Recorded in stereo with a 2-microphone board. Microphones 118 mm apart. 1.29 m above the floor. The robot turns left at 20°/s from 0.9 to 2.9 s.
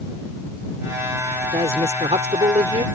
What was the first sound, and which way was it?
A woman speaking, 60° right (ahead or behind).